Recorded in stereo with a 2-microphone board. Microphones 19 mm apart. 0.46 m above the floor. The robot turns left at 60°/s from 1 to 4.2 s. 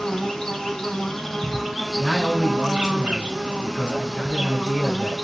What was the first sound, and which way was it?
An insect, 35° left.